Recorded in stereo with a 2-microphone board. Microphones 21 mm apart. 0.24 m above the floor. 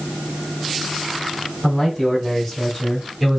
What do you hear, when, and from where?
1.6 s a man speaking: 10° left (ahead or behind), 3 m; by 3.4 s 15° right (ahead or behind), 2.5 m